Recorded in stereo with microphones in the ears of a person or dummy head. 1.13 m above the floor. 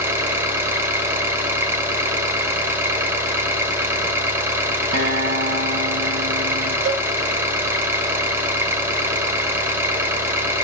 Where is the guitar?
50° right (ahead or behind), 1.9 m.